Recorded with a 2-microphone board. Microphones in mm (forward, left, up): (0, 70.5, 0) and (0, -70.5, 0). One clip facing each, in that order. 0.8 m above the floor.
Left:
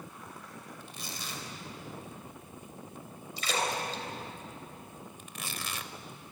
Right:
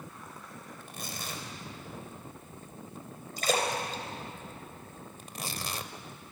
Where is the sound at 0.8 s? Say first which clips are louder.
Right 5 dB; 50° right (ahead or behind), 3 m.